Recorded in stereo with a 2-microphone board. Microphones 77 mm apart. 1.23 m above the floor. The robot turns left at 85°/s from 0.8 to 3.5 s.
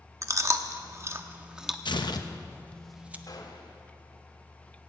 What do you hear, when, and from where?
0.2 s chewing: 45° right (ahead or behind), 0.8 m; by 1.8 s centre (ahead or behind), 0.8 m
1.9 s tearing paper: 75° left (ahead or behind), 0.8 m; by 3.2 s 20° right (ahead or behind), 0.8 m
3.3 s a gunshot: 55° left (ahead or behind), 1.8 m; by 3.8 s 70° left (ahead or behind), 1.8 m